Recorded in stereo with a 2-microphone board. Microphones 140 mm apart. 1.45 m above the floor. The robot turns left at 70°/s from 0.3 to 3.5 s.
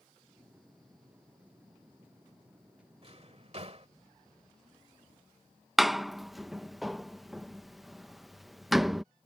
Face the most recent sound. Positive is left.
turn(degrees=0)  # may be behind; listen again after turning